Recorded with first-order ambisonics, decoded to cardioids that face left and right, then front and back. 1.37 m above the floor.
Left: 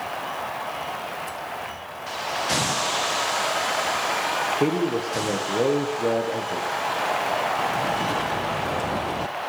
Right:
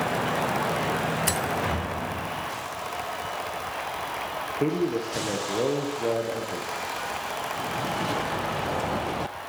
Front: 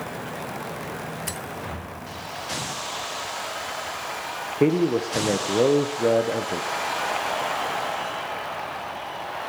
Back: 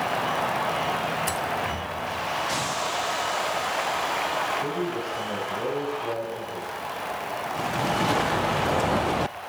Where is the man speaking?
5° left, 0.7 m.